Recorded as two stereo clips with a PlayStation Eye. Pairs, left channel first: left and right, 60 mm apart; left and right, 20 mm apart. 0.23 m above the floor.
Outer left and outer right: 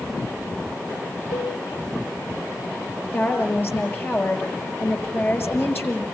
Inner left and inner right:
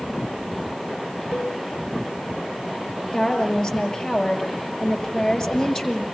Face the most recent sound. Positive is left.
turn(degrees=35)  # may be behind; listen again after turning